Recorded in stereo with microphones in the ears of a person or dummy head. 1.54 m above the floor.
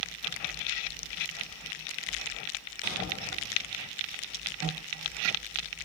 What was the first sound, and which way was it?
A thud, 35° right (ahead or behind).